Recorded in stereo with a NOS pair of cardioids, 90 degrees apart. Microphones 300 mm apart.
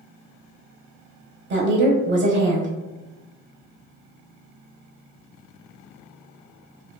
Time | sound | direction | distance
1.5 | a woman speaking | 35° right | 0.7 m